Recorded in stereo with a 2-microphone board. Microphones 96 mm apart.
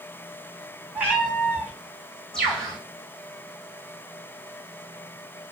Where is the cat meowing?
20° right (ahead or behind), 2.5 m.